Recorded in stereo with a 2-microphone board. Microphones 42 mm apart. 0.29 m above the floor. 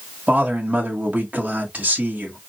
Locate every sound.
0.3 s a man speaking: 40° right (ahead or behind), 1.3 m